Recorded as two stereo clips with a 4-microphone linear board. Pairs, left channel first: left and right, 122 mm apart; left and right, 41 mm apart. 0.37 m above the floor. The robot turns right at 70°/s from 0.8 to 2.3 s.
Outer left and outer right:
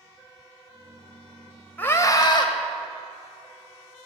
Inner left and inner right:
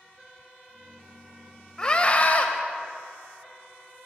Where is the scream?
20° left, 1.8 m; by 2.5 s 55° left, 1.8 m.